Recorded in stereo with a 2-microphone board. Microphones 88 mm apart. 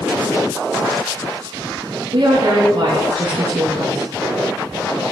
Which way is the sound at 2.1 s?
80° right.